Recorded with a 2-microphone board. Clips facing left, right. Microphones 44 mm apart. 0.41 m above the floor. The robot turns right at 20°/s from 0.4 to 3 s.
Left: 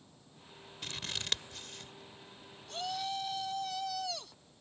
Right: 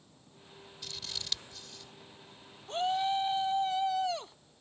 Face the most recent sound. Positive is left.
turn(degrees=-30)  # may be behind; listen again after turning